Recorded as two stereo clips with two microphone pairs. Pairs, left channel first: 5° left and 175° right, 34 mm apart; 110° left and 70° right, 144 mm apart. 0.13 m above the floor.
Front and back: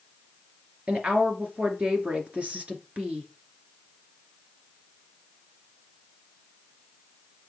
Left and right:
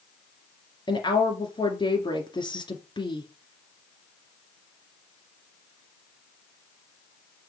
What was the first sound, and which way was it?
A woman speaking, 150° left.